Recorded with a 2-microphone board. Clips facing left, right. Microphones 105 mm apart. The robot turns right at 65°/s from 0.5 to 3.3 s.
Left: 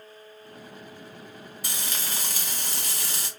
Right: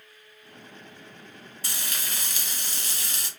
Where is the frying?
25° left, 1.3 m; by 3.3 s 130° left, 1.3 m.